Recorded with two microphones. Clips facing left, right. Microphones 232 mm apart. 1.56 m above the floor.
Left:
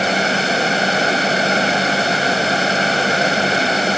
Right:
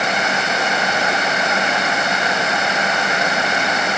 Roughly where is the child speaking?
No child speaking in this recording.